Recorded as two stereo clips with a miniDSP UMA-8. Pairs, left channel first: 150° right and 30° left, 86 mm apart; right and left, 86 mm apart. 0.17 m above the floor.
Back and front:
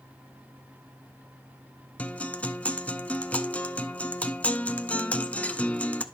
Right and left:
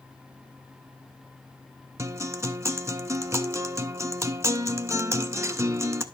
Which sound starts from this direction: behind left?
A guitar, at 2.0 s.